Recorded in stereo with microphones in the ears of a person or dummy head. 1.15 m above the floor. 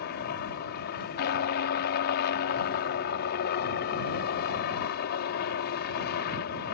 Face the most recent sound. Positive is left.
turn(degrees=45)  # may be behind; listen again after turning